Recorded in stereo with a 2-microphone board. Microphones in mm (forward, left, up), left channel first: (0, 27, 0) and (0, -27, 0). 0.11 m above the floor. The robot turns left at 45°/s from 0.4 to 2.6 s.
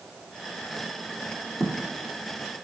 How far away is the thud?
About 2.5 m.